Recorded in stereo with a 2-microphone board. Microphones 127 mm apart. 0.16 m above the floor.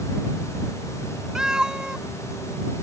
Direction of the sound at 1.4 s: 5° right (ahead or behind).